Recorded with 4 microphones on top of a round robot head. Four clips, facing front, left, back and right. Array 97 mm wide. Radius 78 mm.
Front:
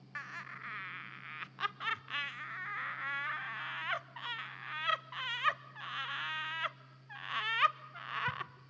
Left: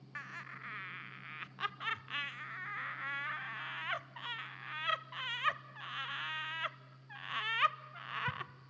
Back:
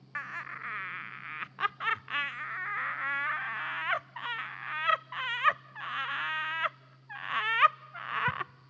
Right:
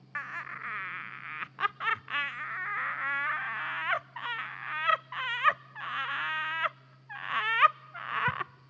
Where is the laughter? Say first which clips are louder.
Right 9 dB, back 6 dB; 125° right, 0.7 m.